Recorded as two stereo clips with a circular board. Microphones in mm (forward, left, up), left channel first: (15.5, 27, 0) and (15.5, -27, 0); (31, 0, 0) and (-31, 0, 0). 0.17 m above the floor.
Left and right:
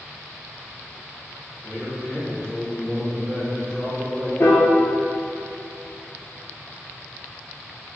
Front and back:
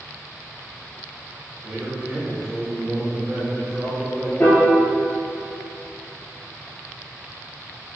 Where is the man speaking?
170° left, 1.5 m.